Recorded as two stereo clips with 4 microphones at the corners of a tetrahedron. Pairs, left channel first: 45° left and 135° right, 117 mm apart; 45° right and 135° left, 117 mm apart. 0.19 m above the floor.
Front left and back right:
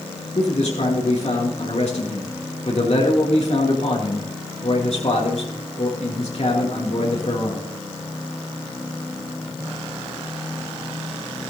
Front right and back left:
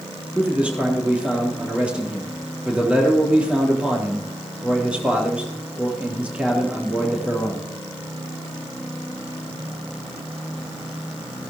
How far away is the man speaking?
About 3.5 m.